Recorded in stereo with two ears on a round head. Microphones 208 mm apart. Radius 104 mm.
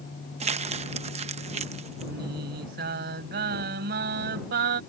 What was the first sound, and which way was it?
Crumpling, 30° right (ahead or behind).